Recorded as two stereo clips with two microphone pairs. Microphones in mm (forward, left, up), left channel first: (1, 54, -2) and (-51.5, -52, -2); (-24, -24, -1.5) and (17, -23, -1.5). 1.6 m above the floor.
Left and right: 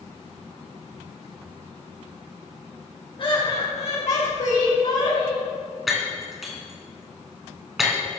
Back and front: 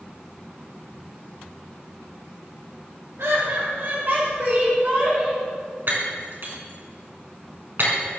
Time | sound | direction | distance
3.2 | laughter | 20° left | 2.0 m
5.9 | breaking glass | 25° right | 3.5 m